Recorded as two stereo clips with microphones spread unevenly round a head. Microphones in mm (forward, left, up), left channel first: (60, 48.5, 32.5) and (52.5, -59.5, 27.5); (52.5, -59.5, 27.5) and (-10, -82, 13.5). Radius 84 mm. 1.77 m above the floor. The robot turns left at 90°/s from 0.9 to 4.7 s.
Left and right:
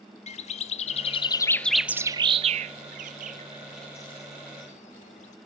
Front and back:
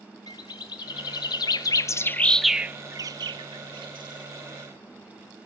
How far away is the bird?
About 0.6 m.